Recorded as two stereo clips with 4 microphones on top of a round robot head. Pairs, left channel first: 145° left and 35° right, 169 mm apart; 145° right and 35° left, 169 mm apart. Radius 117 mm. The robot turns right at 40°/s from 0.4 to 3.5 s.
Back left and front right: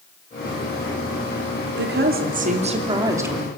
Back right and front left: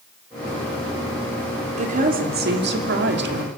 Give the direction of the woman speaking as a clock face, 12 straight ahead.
1 o'clock.